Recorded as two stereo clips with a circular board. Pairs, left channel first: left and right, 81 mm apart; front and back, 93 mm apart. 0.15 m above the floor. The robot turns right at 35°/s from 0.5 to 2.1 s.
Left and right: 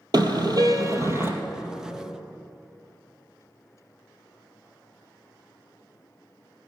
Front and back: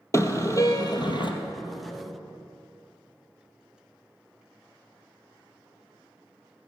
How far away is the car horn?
About 2 m.